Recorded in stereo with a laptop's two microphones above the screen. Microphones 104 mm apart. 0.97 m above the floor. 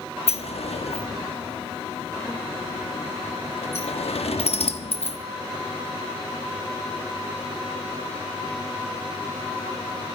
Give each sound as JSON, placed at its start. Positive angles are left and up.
{"t": 0.3, "sound": "a sliding door", "side_deg": 80, "distance_m": 1.1}